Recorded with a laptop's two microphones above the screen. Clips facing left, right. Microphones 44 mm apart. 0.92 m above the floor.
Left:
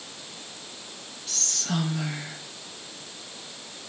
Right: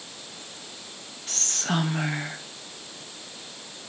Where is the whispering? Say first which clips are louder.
Right 3 dB; 45° right (ahead or behind), 0.8 m.